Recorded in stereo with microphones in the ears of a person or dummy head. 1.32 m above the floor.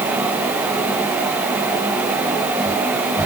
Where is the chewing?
No chewing in this recording.